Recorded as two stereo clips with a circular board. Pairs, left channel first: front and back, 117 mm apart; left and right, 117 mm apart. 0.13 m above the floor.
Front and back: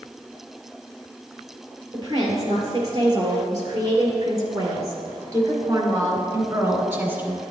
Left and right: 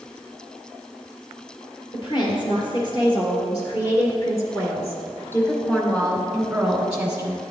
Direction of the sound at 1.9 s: 130° left.